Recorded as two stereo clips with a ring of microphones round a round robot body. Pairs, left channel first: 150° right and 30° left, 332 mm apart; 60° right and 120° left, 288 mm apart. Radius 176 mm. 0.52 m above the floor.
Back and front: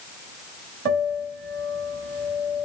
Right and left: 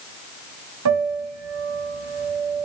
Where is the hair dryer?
I don't hear a hair dryer.